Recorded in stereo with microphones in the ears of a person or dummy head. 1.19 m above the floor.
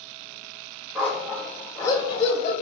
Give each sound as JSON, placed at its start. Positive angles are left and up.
{"t": 0.9, "sound": "a dog barking", "side_deg": -5, "distance_m": 1.2}